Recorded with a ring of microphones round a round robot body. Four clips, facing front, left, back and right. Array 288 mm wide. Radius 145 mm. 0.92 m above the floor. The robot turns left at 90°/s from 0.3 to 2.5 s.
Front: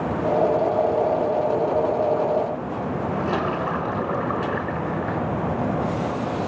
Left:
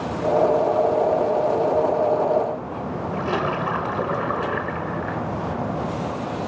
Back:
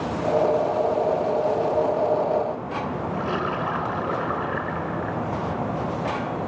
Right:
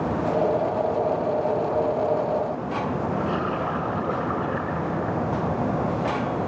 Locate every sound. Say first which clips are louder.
3.1 s a splash: left 2 dB, front 2 dB; 95° left, 7 m